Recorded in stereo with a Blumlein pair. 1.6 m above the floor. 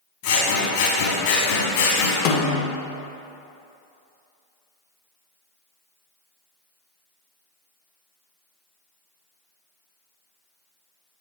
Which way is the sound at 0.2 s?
50° left.